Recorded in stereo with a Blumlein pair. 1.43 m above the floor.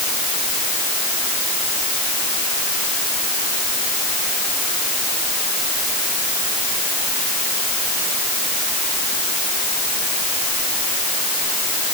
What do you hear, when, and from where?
Only background noise.